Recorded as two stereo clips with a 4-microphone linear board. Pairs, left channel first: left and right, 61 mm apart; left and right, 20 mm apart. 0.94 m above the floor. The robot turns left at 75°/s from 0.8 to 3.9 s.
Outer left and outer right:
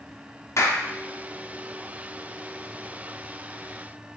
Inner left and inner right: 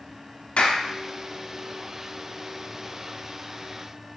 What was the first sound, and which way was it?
A clap, 60° left (ahead or behind).